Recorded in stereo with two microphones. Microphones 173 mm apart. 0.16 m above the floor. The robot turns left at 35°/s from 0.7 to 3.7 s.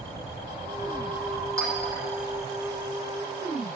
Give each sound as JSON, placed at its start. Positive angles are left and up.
{"t": 1.6, "sound": "a clink", "side_deg": -20, "distance_m": 5.5}